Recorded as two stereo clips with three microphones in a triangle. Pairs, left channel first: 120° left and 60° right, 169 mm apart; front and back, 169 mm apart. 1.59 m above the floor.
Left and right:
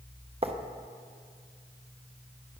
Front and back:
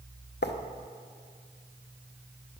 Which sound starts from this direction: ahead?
Writing, at 0.4 s.